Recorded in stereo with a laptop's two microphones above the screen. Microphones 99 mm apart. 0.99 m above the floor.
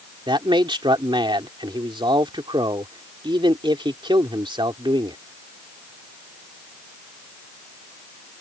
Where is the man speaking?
55° right (ahead or behind).